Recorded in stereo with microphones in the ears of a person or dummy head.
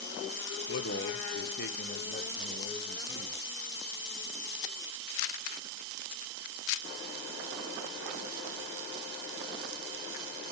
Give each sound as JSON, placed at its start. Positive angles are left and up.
{"t": 0.7, "sound": "a man speaking", "side_deg": 55, "distance_m": 1.0}